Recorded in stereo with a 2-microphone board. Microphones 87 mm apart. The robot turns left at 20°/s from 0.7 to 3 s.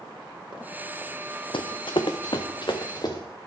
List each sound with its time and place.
1.5 s running footsteps: 75° left (ahead or behind), 0.6 m; by 3.2 s 50° left (ahead or behind), 1.6 m